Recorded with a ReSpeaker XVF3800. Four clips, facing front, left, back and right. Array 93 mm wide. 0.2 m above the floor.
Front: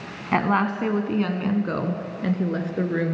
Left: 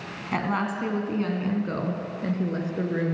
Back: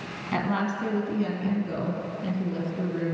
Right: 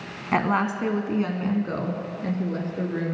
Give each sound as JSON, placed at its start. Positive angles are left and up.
{"t": 0.3, "sound": "a woman speaking", "azimuth_deg": -35, "distance_m": 1.5}